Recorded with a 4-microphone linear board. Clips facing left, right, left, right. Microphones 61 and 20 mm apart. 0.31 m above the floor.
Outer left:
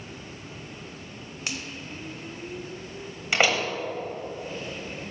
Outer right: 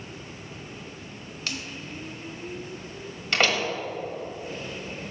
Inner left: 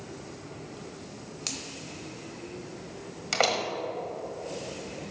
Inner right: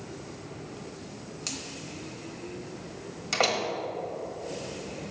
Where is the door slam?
10° left (ahead or behind), 1.1 m.